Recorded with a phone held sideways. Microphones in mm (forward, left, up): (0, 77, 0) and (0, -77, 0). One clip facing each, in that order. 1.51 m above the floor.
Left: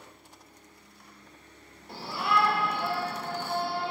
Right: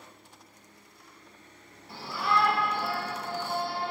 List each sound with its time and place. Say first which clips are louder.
1.9 s a shout: even; 40° left (ahead or behind), 1.7 m; by 3.9 s 35° right (ahead or behind), 3 m